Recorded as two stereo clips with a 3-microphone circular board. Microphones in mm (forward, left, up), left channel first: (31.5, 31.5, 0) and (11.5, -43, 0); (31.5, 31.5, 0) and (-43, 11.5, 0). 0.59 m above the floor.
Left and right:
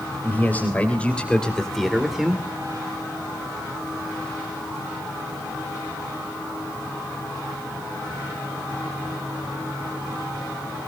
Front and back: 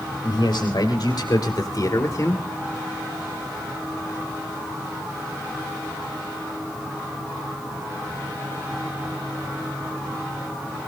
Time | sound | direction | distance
0.2 | a man speaking | 10° left | 3.5 m